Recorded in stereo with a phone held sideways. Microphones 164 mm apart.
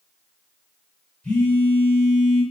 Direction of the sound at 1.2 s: 10° left (ahead or behind).